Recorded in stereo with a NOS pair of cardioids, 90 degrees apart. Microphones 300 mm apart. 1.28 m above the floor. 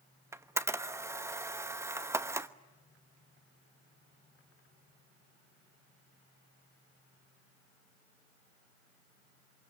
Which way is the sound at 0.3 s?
10° right.